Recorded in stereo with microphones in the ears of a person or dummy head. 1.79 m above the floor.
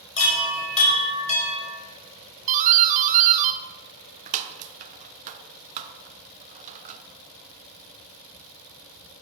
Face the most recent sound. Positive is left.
turn(degrees=-45)  # may be behind; listen again after turning